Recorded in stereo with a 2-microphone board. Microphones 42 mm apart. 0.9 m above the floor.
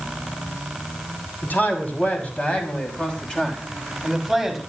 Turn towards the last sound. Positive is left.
turn(degrees=-5)  # may be behind; listen again after turning